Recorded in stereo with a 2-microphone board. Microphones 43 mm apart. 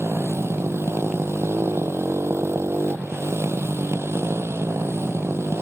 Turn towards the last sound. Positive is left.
turn(degrees=-85)